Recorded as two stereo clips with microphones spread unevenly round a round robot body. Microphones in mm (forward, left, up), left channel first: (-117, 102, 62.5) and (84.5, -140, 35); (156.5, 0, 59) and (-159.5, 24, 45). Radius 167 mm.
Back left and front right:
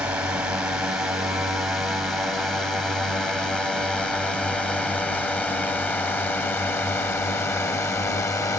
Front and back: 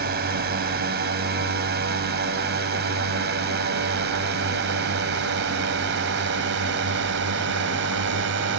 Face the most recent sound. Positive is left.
turn(degrees=-150)